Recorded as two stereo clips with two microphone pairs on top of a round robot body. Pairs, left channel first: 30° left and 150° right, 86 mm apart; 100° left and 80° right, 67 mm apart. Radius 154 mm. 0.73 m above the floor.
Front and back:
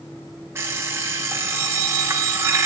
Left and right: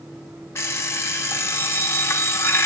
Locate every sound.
0.6 s an alarm clock: 150° left, 0.7 m